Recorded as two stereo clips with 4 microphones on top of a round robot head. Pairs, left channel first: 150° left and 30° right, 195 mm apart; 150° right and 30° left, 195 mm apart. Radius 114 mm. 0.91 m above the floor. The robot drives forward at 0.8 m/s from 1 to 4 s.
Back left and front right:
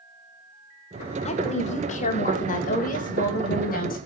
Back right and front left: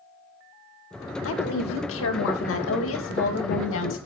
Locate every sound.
1.2 s a woman speaking: 155° right, 3 m; by 4.0 s 165° right, 5 m